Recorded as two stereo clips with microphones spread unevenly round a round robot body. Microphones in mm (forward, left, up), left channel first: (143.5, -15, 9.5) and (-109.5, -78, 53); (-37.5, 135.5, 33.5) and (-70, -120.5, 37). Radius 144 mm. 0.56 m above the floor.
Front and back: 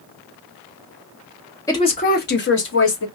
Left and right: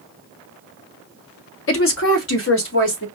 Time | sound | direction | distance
1.7 | a woman speaking | 80° left | 0.9 m